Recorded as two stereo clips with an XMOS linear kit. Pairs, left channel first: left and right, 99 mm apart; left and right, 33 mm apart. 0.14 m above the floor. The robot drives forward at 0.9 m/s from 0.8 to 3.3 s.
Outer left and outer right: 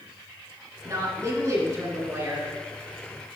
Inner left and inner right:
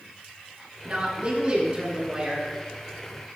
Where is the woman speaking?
35° right (ahead or behind), 1.9 m; by 2.5 s 30° right (ahead or behind), 2.5 m.